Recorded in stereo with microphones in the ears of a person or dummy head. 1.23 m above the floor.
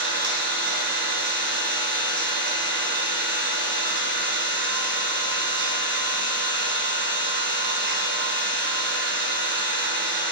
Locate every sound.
0.0 s an engine running: 65° right (ahead or behind), 1.8 m